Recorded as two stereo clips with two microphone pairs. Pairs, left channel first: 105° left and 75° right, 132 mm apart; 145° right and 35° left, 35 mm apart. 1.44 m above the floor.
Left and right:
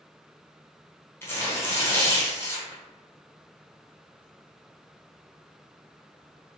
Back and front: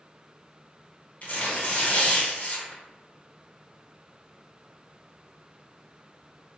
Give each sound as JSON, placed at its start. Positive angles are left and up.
{"t": 1.2, "sound": "tearing paper", "azimuth_deg": 175, "distance_m": 1.0}